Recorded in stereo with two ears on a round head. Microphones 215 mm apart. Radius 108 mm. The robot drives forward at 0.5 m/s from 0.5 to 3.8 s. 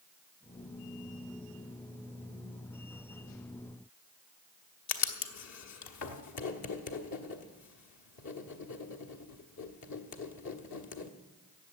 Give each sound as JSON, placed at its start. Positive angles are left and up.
{"t": 4.9, "sound": "writing", "side_deg": 75, "distance_m": 1.2}